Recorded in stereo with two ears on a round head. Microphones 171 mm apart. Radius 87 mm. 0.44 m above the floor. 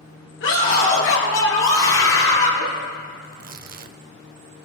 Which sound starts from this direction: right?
Tearing paper, at 3.2 s.